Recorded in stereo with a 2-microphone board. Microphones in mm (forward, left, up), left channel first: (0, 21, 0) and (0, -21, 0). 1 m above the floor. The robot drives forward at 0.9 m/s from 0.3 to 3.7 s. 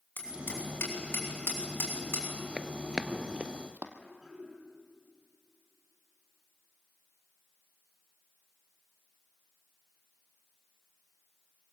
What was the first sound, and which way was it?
Hammering, 50° left (ahead or behind).